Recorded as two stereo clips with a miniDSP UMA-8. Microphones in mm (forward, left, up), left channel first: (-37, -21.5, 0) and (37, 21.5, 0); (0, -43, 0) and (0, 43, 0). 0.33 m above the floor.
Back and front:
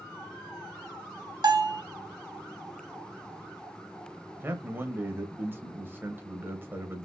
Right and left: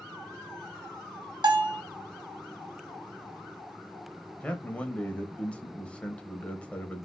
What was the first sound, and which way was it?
A bell, 65° left.